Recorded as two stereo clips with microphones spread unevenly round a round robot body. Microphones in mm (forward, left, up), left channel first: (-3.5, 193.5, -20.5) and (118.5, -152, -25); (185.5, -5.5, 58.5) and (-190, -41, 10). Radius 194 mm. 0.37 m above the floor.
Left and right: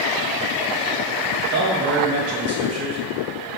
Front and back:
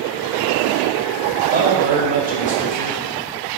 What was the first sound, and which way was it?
A man speaking, 115° right.